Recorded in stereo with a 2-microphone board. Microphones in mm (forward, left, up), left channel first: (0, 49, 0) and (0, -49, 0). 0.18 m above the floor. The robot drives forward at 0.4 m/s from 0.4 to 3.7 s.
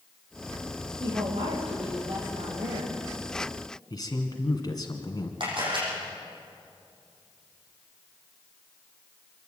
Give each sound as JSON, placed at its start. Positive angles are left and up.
{"t": 1.0, "sound": "a woman speaking", "side_deg": -70, "distance_m": 7.5}
{"t": 3.9, "sound": "a man speaking", "side_deg": 40, "distance_m": 2.0}
{"t": 5.4, "sound": "a camera shutter", "side_deg": -55, "distance_m": 8.5}